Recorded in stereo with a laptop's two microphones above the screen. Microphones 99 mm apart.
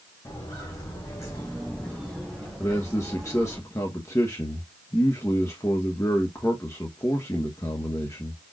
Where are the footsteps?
45° left (ahead or behind), 3 m; by 3.6 s 15° right (ahead or behind), 3 m.